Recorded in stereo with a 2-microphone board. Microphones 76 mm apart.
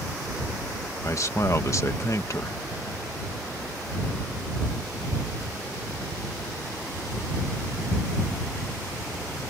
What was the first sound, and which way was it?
A man speaking, 50° left (ahead or behind).